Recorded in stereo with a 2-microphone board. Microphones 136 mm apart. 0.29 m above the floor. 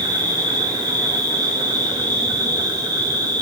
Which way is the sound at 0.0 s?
30° right (ahead or behind).